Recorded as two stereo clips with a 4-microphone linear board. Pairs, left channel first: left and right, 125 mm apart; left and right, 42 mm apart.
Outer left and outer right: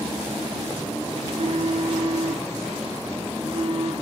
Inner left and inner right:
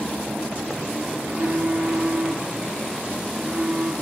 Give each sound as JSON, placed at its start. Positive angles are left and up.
{"t": 1.2, "sound": "a phone buzzing", "side_deg": -50, "distance_m": 1.4}